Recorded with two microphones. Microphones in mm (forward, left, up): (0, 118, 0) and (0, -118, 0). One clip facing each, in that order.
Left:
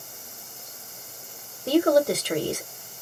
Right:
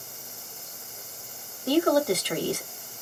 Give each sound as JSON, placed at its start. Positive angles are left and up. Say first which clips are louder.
{"t": 1.7, "sound": "a woman speaking", "louder": "left 2 dB", "side_deg": 25, "distance_m": 1.3}